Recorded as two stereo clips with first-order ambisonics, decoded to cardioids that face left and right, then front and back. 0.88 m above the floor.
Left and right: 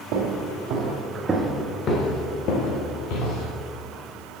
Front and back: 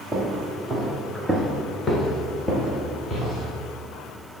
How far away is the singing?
I don't hear singing.